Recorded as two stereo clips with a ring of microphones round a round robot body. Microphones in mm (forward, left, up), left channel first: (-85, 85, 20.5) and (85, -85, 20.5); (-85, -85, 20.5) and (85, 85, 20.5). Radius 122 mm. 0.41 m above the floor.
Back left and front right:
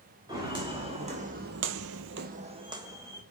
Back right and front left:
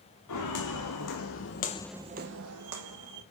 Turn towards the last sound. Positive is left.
turn(degrees=35)